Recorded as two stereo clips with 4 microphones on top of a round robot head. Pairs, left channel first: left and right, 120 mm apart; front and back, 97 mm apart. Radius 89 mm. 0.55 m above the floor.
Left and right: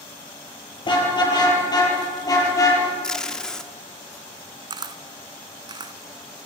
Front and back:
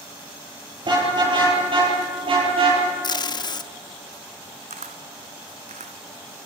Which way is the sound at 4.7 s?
140° right.